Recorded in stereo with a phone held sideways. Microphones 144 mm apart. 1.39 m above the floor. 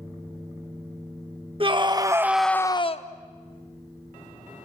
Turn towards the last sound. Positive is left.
turn(degrees=55)  # may be behind; listen again after turning